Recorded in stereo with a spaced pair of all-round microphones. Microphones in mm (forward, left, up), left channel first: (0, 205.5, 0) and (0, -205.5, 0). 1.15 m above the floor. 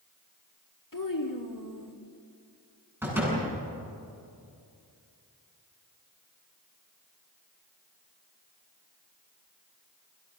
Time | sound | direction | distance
0.9 | a child speaking | 50° left (ahead or behind) | 2 m
3.0 | a door slam | 5° right (ahead or behind) | 9 m